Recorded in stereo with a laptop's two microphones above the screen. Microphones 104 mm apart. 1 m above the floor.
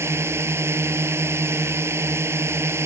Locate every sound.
0.0 s a drone: 25° right (ahead or behind)